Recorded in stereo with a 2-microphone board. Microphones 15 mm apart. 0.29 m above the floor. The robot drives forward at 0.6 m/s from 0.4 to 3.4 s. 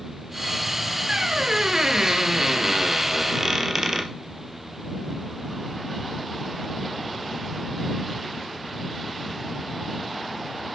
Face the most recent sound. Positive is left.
turn(degrees=-30)  # may be behind; listen again after turning